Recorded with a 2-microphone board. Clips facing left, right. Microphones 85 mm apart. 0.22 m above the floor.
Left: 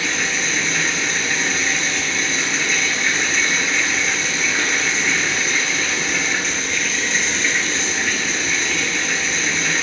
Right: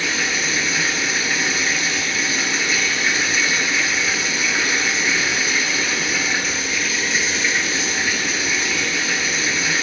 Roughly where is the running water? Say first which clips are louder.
Even; centre.